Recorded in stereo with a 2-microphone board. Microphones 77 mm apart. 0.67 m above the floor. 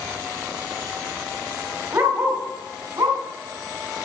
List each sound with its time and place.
1.9 s a dog barking: 30° right (ahead or behind), 1.6 m; by 3.2 s 55° right (ahead or behind), 2.5 m